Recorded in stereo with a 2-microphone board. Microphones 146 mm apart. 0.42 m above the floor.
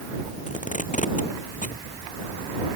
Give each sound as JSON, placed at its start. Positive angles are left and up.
{"t": 0.5, "sound": "tape being pulled", "side_deg": 60}